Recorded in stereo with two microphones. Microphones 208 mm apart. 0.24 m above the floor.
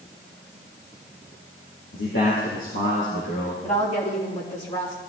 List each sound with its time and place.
1.9 s a man speaking: 75° left (ahead or behind), 4.5 m; by 3.5 s 60° left (ahead or behind), 4.5 m
3.6 s a woman speaking: 35° left (ahead or behind), 5.5 m